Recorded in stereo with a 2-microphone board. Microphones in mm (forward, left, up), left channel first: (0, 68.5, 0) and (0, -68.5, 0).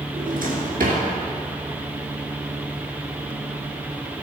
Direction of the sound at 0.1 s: 75° right (ahead or behind).